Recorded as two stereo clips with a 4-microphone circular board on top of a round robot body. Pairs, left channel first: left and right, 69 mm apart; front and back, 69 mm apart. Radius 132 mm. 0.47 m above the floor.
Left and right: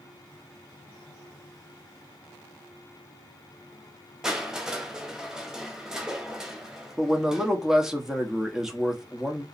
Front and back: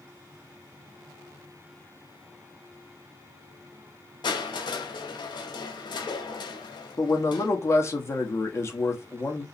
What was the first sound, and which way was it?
Crushing, 5° right.